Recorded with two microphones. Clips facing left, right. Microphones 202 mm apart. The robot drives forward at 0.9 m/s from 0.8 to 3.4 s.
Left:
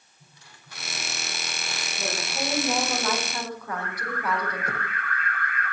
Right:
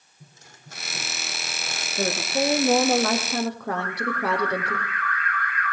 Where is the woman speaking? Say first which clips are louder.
Right 8 dB; 65° right (ahead or behind), 7 m; by 4.8 s 70° right (ahead or behind), 6.5 m.